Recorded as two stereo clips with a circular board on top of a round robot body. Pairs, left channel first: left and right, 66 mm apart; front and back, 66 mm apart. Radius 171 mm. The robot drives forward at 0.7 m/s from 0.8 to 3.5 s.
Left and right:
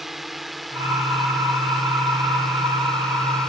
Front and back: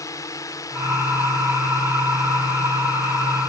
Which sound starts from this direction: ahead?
A drone, at 0.0 s.